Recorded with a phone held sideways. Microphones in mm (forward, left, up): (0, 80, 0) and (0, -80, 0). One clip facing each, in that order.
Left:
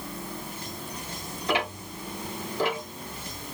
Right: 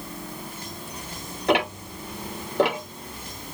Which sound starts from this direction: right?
Ticking, at 1.5 s.